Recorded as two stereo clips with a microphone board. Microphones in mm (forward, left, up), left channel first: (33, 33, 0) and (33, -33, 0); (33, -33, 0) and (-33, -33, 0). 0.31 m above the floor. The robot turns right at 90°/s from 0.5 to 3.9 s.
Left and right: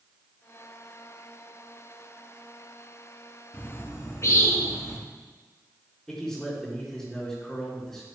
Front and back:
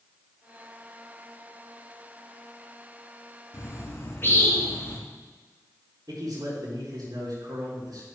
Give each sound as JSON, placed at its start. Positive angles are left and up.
{"t": 3.5, "sound": "a bird", "azimuth_deg": 20, "distance_m": 2.5}
{"t": 6.1, "sound": "a man speaking", "azimuth_deg": 175, "distance_m": 4.0}